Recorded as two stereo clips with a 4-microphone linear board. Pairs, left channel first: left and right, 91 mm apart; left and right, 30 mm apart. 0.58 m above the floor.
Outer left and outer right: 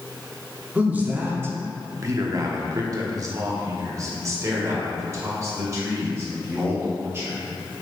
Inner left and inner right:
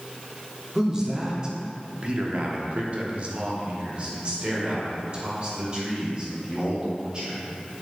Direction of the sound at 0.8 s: 15° right (ahead or behind).